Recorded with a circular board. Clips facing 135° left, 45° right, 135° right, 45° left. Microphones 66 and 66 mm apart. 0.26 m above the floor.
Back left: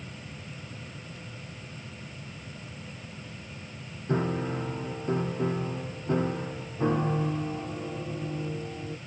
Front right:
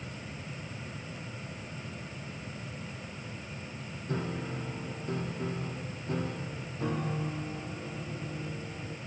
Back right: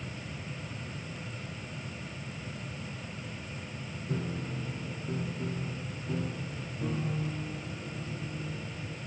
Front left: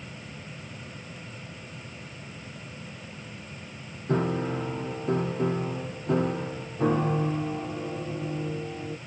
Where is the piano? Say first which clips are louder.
Back left 7 dB, front left 10 dB; 75° left.